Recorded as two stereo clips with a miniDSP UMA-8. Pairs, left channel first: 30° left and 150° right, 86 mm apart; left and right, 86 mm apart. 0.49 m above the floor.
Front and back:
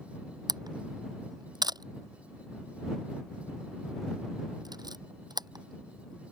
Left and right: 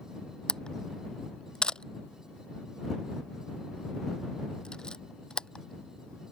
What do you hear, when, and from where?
0.5 s a camera shutter: 170° left